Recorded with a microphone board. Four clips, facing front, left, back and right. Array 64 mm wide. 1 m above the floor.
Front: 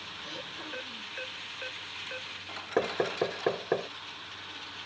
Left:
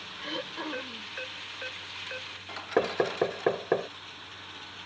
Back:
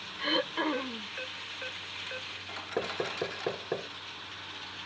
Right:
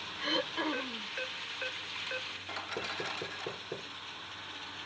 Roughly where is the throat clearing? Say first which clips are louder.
Right 3 dB, back 15 dB; behind.